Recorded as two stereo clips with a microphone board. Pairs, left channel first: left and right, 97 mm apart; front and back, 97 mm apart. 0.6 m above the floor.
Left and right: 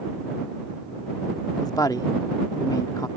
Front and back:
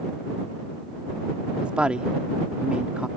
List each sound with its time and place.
1.6 s a woman speaking: 105° left